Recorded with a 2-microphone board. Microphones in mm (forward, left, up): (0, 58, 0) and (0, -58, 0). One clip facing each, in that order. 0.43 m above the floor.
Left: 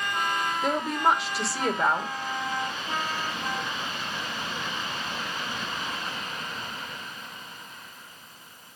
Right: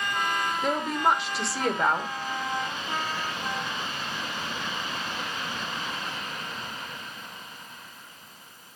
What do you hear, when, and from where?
0.6 s a woman speaking: centre (ahead or behind), 0.9 m